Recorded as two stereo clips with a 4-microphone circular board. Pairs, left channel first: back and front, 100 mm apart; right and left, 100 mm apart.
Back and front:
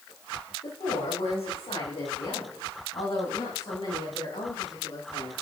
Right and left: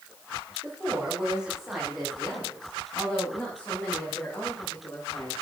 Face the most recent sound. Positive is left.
turn(degrees=-150)